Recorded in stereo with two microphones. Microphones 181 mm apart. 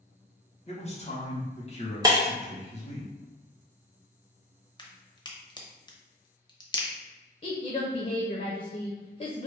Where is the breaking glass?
20° right (ahead or behind), 0.6 m.